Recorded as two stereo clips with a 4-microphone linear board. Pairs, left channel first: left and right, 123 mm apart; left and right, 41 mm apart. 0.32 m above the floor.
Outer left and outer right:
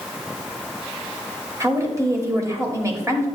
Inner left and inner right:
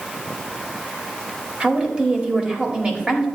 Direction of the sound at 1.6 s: 25° right (ahead or behind).